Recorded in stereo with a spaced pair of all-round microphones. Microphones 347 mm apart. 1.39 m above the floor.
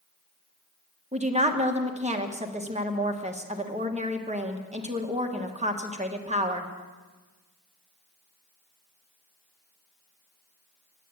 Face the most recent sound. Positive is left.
turn(degrees=-20)  # may be behind; listen again after turning